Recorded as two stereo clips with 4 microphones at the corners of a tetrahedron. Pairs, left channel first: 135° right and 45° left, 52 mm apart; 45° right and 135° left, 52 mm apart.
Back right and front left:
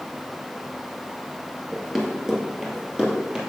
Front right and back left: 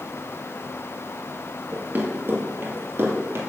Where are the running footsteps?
130° left, 1.9 m; by 3.4 s 115° left, 2.5 m.